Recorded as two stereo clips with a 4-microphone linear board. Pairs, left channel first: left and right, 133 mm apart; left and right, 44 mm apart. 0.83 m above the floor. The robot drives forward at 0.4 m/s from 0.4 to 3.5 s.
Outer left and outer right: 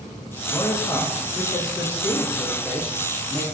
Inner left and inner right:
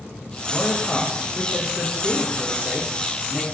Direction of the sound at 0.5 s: 25° left (ahead or behind).